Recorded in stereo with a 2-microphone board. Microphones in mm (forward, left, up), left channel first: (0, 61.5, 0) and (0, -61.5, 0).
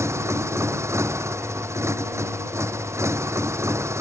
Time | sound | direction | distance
0.0 | a motorcycle | 20° right (ahead or behind) | ?